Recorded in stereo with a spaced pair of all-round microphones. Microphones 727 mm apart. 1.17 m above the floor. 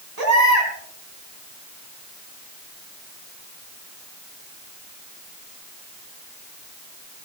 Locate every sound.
0.2 s a baby crying: 60° right (ahead or behind), 4 m